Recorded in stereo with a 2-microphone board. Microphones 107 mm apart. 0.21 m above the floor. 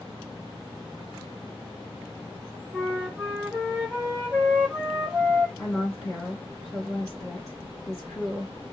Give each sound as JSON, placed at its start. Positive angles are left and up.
{"t": 2.7, "sound": "a flute", "side_deg": -15, "distance_m": 3.5}
{"t": 5.6, "sound": "a woman speaking", "side_deg": 0, "distance_m": 3.0}